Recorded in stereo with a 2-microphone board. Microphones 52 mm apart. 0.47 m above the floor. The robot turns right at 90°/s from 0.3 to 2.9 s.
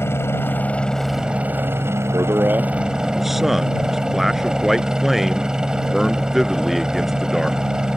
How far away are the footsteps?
I don't hear footsteps.